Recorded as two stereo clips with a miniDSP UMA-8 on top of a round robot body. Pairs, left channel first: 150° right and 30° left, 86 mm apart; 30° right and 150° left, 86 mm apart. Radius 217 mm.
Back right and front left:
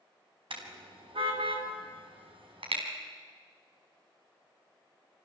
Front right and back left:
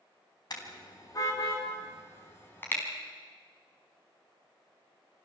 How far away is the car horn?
About 4 m.